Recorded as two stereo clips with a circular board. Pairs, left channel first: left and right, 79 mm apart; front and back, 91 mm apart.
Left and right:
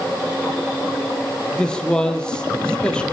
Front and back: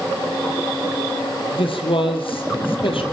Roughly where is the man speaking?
Ahead.